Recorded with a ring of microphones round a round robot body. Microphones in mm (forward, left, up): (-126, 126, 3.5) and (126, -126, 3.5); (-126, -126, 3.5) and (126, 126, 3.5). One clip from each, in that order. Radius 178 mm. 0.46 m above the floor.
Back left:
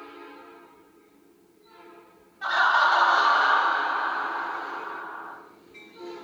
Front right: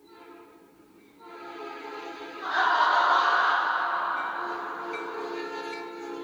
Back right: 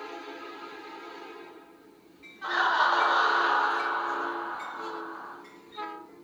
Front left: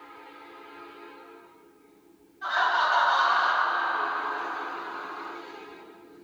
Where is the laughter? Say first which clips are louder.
Back left 2 dB, even; 150° left, 1.7 m; by 5.3 s 60° left, 1.6 m.